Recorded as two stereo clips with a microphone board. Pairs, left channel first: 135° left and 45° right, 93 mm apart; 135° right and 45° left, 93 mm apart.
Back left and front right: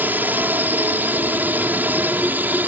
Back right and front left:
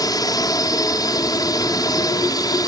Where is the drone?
110° right.